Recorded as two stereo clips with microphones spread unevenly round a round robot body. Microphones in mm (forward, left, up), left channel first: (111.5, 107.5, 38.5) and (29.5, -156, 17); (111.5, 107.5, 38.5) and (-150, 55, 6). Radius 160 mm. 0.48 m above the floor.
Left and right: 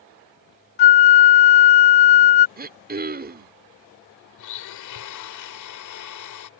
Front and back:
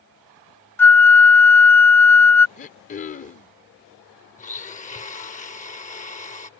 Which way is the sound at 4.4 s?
75° left.